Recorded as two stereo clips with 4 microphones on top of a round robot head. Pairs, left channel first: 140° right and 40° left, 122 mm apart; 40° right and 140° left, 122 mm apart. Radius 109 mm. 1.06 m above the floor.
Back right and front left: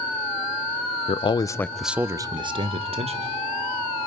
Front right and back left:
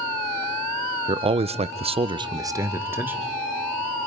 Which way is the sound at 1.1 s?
175° right.